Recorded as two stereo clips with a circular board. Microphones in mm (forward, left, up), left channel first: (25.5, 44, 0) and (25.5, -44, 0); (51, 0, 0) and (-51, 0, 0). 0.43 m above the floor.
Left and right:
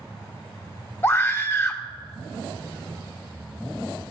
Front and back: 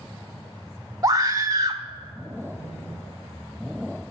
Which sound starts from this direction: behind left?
A scream, at 1.0 s.